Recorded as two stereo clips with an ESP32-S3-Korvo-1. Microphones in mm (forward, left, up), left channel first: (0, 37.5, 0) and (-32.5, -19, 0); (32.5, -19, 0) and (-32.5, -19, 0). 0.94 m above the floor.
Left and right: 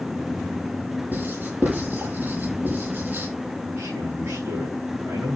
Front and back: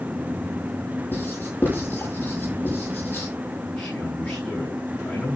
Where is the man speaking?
70° right, 7.5 m.